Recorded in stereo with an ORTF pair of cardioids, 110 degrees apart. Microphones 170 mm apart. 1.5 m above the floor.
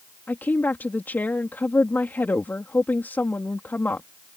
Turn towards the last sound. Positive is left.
turn(degrees=10)